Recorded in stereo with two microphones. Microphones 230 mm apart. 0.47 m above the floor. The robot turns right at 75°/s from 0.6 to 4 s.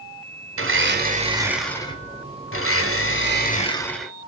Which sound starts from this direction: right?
A blender, at 0.6 s.